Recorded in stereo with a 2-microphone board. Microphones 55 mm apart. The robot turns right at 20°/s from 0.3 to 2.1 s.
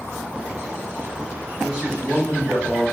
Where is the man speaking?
15° right (ahead or behind), 0.7 m; by 2.8 s 10° right (ahead or behind), 0.7 m.